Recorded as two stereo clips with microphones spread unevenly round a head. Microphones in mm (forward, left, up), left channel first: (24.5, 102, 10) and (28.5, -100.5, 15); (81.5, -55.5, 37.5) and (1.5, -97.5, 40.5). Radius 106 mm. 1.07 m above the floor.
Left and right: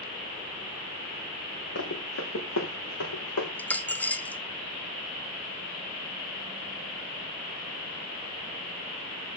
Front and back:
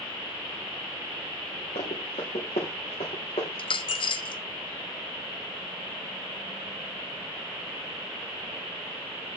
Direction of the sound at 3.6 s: 10° left.